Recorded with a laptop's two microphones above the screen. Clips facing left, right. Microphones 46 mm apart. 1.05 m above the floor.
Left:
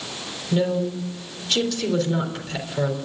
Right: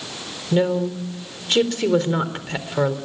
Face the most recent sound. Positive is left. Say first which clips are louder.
# right 3 dB
turn(degrees=-35)  # may be behind; listen again after turning